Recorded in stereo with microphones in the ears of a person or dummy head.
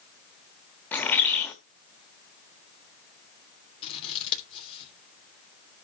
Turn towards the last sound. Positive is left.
turn(degrees=35)  # may be behind; listen again after turning